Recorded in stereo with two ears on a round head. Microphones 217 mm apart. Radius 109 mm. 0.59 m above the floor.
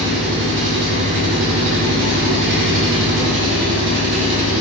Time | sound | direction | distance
0.0 | an engine running | 50° right (ahead or behind) | 0.9 m